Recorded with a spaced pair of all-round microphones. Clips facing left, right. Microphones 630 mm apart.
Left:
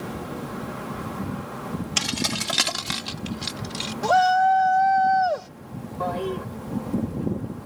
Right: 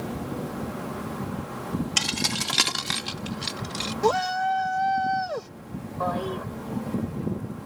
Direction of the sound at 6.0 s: 55° left (ahead or behind).